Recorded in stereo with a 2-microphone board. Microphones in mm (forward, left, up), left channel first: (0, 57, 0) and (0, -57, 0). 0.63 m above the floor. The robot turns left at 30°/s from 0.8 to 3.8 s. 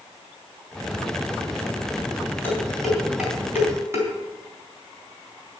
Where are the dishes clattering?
15° left (ahead or behind), 4 m; by 4.1 s 25° right (ahead or behind), 4 m.